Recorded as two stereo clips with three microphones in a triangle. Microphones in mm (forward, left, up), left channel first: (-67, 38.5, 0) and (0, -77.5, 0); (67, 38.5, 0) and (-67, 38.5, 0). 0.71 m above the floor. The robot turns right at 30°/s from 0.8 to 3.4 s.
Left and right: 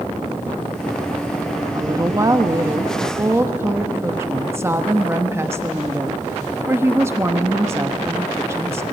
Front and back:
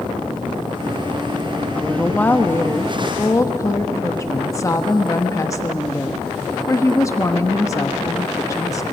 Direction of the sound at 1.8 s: 70° right.